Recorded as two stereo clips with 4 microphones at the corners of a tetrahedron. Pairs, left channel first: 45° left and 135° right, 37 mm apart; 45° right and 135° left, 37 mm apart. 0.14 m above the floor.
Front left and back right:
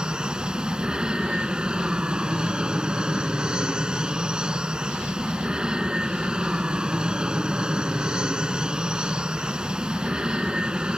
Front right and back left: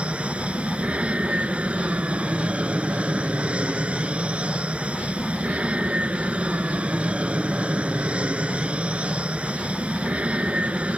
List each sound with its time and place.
0.0 s an aircraft: 170° left